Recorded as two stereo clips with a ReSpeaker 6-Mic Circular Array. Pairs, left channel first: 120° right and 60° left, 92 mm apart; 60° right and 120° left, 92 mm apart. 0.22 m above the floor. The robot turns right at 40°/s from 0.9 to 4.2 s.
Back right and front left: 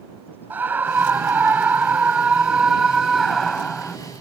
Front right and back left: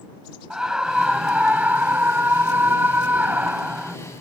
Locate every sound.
0.5 s a scream: 55° left; by 4.0 s 175° left